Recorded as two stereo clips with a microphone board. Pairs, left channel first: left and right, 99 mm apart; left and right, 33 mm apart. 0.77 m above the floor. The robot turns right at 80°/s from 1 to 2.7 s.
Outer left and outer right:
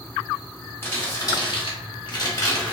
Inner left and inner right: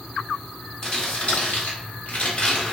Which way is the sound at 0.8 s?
25° left (ahead or behind).